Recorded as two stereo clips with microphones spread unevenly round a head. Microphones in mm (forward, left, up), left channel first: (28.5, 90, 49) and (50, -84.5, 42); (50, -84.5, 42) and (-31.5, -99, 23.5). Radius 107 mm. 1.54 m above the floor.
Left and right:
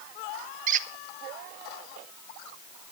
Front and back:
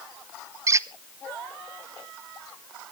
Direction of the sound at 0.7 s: 120° right.